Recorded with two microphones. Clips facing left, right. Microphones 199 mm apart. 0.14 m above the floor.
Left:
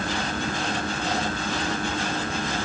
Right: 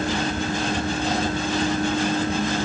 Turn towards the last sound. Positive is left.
No sound to turn to.